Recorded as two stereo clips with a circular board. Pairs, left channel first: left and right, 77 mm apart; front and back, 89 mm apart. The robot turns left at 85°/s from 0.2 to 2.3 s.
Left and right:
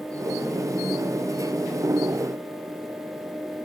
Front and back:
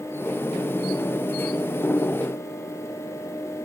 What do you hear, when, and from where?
Only background noise.